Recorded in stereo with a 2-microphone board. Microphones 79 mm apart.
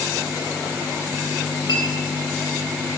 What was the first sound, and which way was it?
A clink, 80° left.